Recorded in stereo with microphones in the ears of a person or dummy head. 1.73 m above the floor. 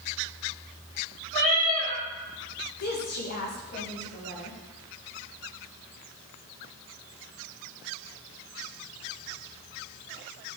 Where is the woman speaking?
45° left (ahead or behind), 1.5 m.